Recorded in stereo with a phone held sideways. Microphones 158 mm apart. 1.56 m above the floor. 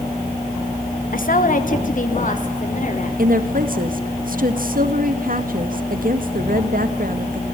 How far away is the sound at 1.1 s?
About 1.7 m.